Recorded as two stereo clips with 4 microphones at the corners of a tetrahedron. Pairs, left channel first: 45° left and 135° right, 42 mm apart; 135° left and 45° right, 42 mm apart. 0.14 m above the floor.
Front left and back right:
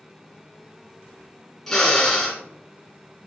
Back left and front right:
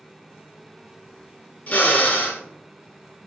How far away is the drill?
About 1.1 m.